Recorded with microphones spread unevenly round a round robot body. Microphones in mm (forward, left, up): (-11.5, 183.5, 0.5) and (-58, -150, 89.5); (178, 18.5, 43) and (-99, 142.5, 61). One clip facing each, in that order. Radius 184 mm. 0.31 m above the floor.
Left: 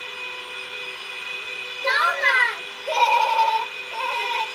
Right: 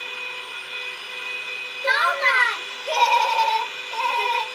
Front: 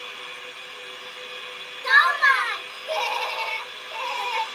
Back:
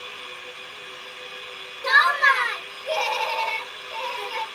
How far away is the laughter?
About 1.4 m.